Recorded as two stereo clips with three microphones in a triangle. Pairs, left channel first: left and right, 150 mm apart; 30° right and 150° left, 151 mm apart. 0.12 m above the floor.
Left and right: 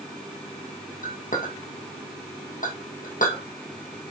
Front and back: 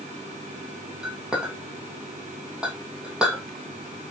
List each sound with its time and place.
1.0 s a clink: 65° left, 3 m